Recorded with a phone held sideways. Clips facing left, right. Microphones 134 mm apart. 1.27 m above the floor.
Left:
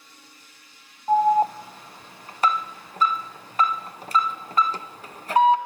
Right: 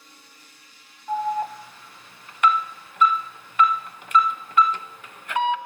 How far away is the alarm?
About 0.5 m.